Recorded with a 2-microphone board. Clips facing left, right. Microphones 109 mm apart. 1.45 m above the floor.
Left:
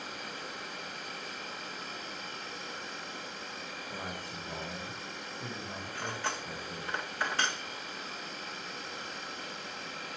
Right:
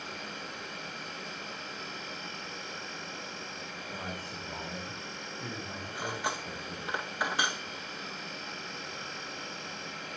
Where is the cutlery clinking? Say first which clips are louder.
Right 2 dB; 15° right (ahead or behind), 0.8 m.